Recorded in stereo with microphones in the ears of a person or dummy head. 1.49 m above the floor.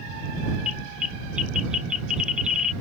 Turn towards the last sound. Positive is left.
turn(degrees=-10)  # may be behind; listen again after turning